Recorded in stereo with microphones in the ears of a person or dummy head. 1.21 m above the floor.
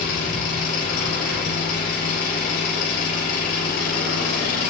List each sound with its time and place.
0.0 s an engine running: 55° left (ahead or behind), 6 m